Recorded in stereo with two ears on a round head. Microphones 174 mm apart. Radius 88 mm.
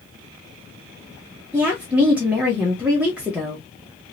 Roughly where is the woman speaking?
Centre.